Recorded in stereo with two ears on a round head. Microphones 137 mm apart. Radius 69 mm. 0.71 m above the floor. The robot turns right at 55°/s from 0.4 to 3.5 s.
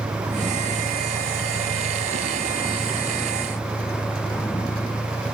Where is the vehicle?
160° right; by 5.3 s 10° left.